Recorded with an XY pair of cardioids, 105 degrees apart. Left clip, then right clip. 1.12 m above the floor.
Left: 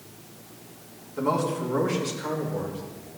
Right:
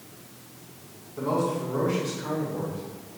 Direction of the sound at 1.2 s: 30° left.